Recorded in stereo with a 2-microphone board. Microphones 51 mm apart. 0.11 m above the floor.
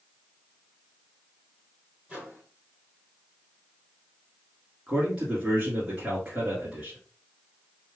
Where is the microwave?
20° right (ahead or behind), 2.5 m.